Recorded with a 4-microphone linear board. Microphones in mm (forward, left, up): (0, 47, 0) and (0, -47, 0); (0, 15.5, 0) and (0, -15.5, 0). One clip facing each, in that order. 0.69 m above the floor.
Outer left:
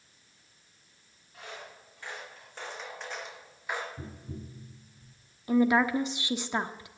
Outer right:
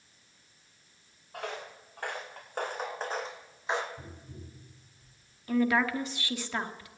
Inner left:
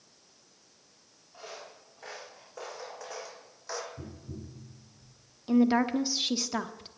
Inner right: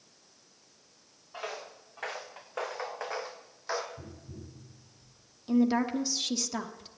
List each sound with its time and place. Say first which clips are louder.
1.3 s footsteps: outer right 6 dB, inner right 6 dB; 65° right (ahead or behind), 3.5 m; by 3.9 s 20° right (ahead or behind), 1.8 m
4.0 s tapping: outer left 5 dB, inner left 3 dB; 90° left, 7 m
5.5 s a woman speaking: outer left 3 dB, inner left 2 dB; 20° left (ahead or behind), 1.0 m